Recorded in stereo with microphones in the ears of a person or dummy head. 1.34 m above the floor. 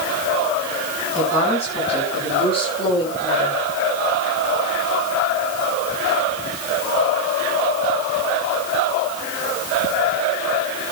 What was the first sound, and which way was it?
A woman speaking, 45° left (ahead or behind).